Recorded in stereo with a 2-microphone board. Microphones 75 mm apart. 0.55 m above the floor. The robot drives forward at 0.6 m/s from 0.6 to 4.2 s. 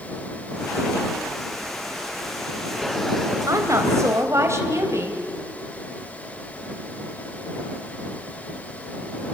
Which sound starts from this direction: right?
A woman speaking, at 3.5 s.